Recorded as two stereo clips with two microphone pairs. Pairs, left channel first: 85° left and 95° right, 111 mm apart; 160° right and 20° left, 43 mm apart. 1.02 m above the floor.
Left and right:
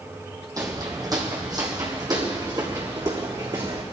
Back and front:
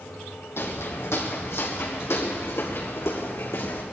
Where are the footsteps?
150° right, 2.5 m; by 3.8 s 145° right, 4.5 m.